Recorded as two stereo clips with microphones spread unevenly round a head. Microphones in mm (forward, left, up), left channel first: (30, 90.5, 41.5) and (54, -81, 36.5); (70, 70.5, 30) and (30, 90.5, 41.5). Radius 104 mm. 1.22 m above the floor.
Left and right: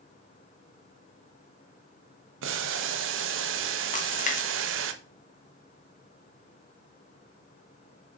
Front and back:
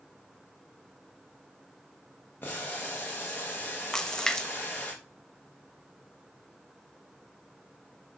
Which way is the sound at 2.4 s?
90° right.